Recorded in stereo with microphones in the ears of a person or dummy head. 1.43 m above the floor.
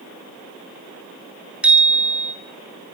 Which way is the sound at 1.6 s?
5° right (ahead or behind).